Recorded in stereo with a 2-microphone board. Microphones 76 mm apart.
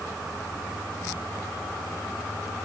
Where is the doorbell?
I don't hear a doorbell.